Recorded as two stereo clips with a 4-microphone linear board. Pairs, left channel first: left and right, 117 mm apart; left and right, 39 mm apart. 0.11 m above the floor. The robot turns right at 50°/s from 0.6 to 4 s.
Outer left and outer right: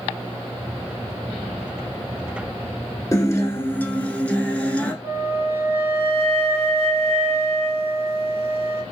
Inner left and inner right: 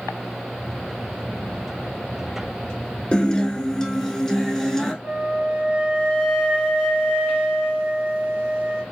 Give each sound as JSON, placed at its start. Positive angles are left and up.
{"t": 3.1, "sound": "a guitar", "side_deg": 30, "distance_m": 0.7}
{"t": 5.0, "sound": "a flute", "side_deg": -25, "distance_m": 1.2}